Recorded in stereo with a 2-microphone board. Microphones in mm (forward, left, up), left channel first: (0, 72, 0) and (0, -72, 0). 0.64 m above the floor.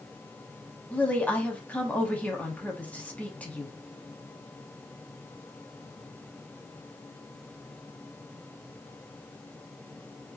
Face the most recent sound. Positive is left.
turn(degrees=10)  # may be behind; listen again after turning